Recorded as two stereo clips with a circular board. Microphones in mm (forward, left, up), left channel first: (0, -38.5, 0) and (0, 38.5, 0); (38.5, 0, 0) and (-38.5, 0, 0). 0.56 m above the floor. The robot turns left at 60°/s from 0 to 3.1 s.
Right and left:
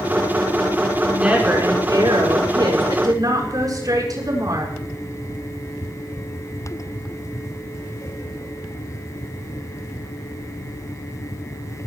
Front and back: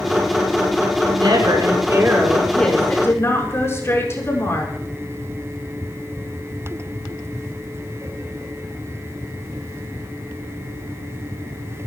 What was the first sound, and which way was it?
A woman speaking, 175° left.